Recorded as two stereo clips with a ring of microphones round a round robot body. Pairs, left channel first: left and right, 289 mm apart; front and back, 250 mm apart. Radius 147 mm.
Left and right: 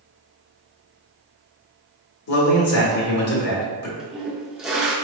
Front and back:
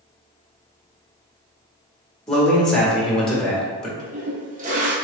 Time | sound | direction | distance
2.3 | a man speaking | 85° left | 1.5 m
4.0 | a toilet flushing | 175° right | 0.8 m